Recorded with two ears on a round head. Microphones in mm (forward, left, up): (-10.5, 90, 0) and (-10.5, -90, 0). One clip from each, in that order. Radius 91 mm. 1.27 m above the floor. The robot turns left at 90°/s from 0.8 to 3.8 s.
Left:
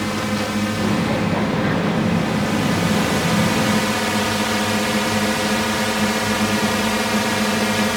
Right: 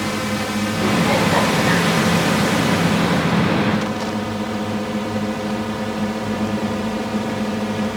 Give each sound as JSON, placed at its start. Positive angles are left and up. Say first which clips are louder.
{"t": 0.0, "sound": "a drone", "louder": "even", "side_deg": -5}